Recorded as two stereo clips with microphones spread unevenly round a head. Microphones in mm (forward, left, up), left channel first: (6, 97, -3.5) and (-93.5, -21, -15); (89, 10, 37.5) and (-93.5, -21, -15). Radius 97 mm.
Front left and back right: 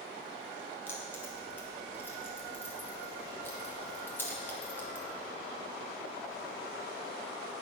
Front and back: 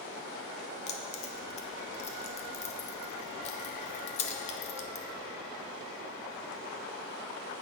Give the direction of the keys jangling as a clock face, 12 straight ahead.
1 o'clock.